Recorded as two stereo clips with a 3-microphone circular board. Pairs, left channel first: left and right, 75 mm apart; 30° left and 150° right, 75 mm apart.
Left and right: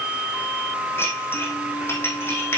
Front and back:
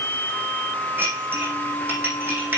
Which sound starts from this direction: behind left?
Dishes clattering, at 1.0 s.